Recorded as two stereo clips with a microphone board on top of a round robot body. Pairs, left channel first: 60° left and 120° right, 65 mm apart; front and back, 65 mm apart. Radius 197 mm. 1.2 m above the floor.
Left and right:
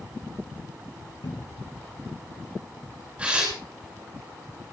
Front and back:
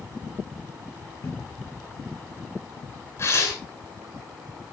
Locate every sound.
1.2 s a cupboard door: 50° left, 3 m
3.2 s tearing paper: 45° right, 9.5 m